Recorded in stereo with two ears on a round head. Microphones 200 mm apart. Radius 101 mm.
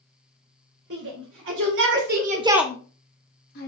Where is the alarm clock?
I don't hear an alarm clock.